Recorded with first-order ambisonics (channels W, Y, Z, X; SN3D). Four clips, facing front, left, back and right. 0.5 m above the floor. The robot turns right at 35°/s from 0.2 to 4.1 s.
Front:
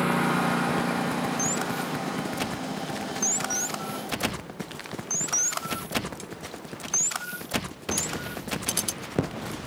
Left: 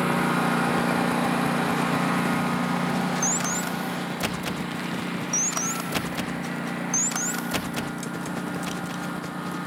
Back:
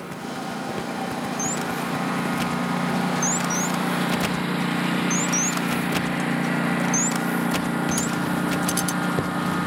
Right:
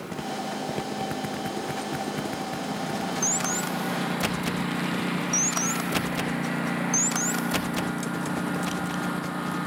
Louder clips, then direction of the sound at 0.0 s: Left 9 dB, front 7 dB; 50° left.